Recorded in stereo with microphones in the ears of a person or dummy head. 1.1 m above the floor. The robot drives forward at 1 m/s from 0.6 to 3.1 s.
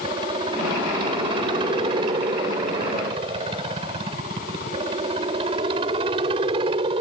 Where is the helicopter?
25° right (ahead or behind).